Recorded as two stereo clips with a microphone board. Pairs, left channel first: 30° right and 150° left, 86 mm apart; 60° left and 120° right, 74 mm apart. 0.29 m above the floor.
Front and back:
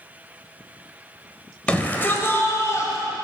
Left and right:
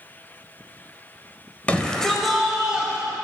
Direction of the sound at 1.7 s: 25° left.